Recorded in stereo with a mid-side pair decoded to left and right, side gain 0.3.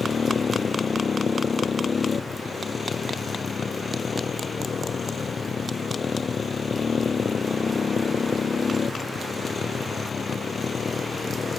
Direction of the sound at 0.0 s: 55° left.